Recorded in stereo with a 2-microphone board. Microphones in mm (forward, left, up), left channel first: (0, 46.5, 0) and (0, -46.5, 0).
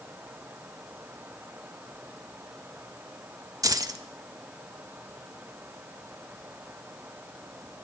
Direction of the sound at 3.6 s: 40° right (ahead or behind).